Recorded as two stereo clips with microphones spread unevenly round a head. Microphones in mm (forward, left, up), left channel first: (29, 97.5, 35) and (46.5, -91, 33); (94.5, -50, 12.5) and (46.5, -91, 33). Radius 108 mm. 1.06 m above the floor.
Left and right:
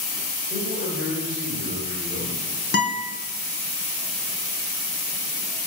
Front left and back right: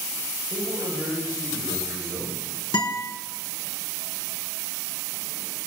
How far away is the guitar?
About 3 m.